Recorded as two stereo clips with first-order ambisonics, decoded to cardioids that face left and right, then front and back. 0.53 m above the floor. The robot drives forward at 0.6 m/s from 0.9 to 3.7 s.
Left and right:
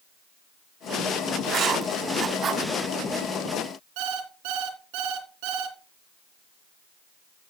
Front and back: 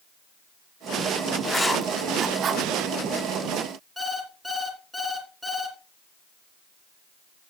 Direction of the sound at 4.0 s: 90° right.